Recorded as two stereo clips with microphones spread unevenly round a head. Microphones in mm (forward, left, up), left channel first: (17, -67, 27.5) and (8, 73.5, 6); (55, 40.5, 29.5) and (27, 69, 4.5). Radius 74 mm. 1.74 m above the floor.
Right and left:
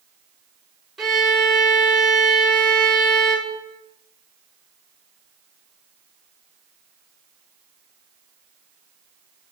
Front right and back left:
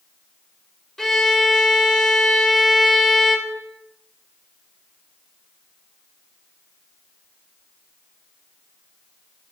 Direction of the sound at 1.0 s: 5° right.